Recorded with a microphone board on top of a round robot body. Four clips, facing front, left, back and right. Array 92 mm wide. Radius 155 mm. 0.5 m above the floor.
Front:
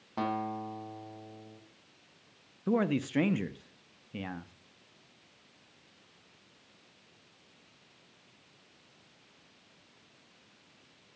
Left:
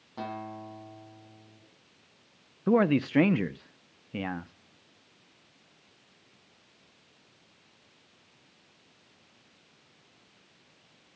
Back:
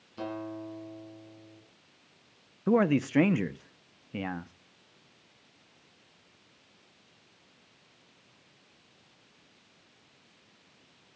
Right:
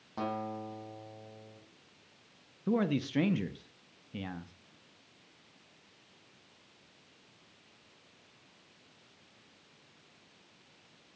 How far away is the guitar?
About 5.5 m.